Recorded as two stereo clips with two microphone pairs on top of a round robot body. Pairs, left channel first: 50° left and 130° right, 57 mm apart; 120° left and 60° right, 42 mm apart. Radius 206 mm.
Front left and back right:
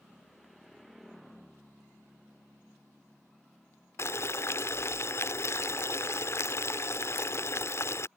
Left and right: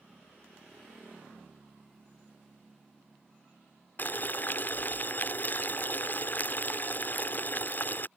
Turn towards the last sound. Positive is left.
turn(degrees=85)